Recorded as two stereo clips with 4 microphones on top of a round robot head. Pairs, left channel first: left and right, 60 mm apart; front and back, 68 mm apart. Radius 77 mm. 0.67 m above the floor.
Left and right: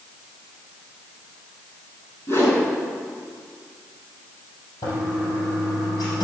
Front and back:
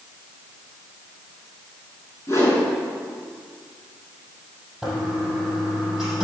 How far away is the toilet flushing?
About 6 m.